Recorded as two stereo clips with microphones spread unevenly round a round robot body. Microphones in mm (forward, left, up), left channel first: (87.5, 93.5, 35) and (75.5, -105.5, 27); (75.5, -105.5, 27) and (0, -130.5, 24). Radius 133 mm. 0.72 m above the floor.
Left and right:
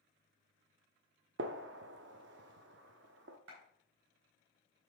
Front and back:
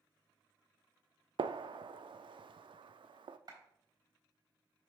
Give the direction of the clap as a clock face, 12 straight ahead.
4 o'clock.